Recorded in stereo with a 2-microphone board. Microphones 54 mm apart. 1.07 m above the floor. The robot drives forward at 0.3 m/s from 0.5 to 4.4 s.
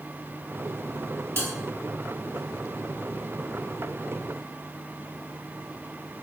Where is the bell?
50° right (ahead or behind), 1.2 m.